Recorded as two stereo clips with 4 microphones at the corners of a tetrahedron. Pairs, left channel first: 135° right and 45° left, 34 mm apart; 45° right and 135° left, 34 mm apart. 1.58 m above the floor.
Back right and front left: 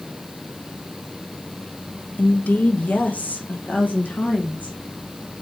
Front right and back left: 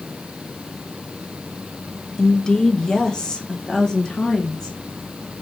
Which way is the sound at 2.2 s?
115° right.